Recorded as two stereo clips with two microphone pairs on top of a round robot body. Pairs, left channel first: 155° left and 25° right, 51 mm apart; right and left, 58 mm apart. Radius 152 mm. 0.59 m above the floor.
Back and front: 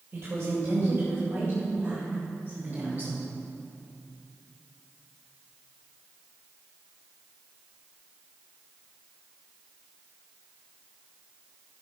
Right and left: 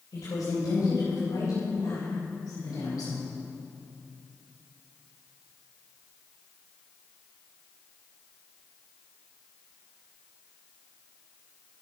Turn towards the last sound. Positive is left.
turn(degrees=-75)